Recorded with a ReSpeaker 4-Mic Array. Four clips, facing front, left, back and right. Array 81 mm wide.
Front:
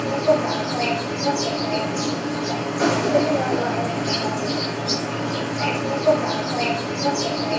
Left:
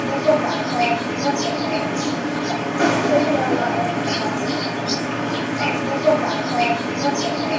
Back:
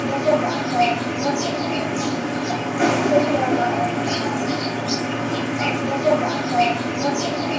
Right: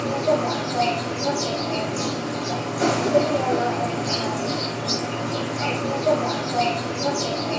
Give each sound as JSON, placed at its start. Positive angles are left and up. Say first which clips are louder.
{"t": 0.0, "sound": "an insect", "louder": "left 4 dB, even", "azimuth_deg": 95, "distance_m": 5.0}